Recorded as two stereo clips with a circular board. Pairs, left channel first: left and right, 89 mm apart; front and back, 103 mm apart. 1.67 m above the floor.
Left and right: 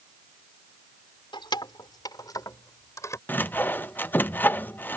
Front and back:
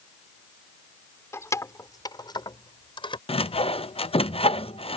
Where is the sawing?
20° left.